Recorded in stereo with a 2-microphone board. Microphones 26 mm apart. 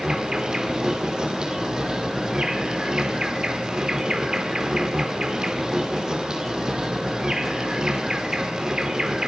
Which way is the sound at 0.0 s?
30° right (ahead or behind).